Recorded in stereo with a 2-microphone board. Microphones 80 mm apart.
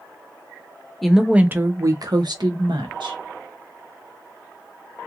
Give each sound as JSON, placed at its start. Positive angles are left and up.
{"t": 1.0, "sound": "a woman speaking", "side_deg": 0, "distance_m": 0.6}